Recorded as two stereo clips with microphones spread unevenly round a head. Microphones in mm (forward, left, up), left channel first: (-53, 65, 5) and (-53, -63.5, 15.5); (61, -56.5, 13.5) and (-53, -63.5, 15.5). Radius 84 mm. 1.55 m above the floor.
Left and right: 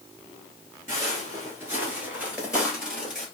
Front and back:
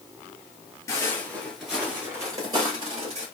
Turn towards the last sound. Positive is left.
turn(degrees=-175)